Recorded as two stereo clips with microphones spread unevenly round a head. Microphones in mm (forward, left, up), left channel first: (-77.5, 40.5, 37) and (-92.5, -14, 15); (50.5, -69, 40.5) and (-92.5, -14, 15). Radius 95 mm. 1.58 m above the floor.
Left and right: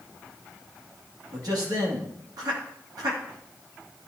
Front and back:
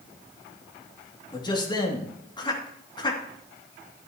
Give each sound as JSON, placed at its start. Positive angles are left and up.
{"t": 1.3, "sound": "a man speaking", "azimuth_deg": -80, "distance_m": 2.5}